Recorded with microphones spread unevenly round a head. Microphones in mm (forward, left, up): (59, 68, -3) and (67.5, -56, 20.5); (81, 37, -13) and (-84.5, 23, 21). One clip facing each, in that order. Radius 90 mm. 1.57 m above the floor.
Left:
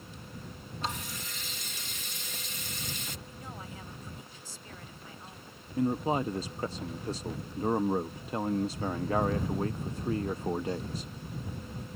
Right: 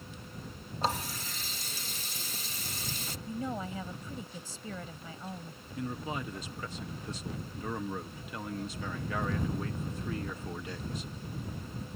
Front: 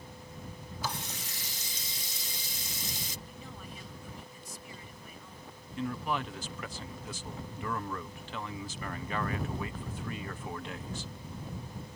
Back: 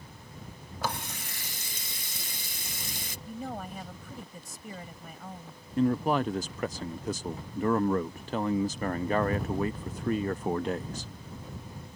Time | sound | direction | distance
0.8 | a running tap | 145° right | ?
3.3 | a woman speaking | 125° right | ?
5.8 | a man speaking | 165° left | ?